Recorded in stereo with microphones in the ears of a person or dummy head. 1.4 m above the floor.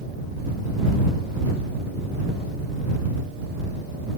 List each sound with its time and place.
Only background noise.